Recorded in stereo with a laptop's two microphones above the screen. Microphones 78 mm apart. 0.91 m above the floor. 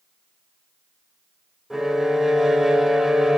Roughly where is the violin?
Centre.